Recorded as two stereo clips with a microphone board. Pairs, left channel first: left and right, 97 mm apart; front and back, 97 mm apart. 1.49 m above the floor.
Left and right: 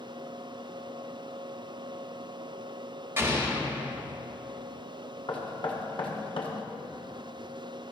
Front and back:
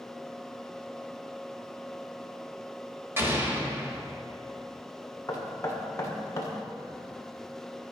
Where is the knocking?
60° left, 1.3 m.